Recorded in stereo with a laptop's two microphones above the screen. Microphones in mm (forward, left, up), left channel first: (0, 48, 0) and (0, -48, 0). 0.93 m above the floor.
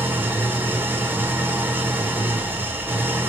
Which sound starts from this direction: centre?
An engine running, at 0.0 s.